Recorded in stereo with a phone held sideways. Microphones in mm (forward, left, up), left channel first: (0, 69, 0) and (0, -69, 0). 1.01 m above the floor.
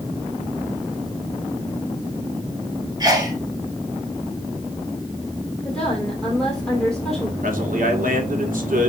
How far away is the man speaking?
About 2.5 m.